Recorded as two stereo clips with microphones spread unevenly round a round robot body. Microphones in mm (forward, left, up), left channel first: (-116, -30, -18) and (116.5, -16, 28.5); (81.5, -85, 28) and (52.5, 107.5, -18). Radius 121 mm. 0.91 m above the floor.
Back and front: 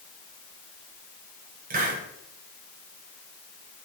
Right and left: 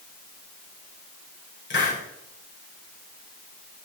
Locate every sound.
1.7 s a hiss: 55° right, 5.5 m